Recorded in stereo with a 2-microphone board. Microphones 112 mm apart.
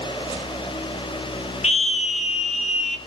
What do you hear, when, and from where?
1.6 s a scream: 70° left (ahead or behind), 1.5 m; by 3.0 s 75° left (ahead or behind), 2.5 m